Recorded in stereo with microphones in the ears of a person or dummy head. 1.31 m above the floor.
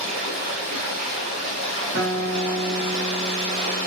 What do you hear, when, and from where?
0.0 s running water: 45° right (ahead or behind), 1.5 m
1.9 s a guitar: 65° right (ahead or behind), 1.0 m